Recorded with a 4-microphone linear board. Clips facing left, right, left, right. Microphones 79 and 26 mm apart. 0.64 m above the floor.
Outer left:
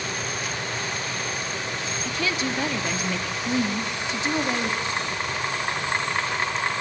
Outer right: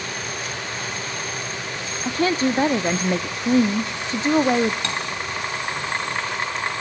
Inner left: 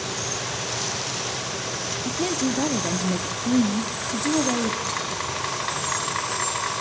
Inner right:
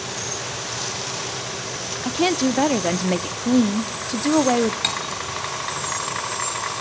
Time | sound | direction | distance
2.0 | a woman speaking | 40° right (ahead or behind) | 0.9 m
4.8 | cutlery clinking | 80° right | 4 m